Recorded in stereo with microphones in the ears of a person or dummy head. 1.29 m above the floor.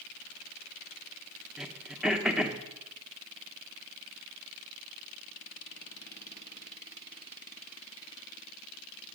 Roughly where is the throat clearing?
Centre.